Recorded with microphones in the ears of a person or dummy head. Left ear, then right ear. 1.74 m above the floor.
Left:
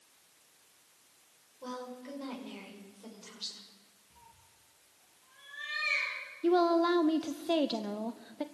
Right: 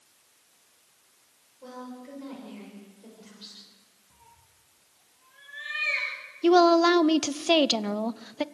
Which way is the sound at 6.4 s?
35° right (ahead or behind).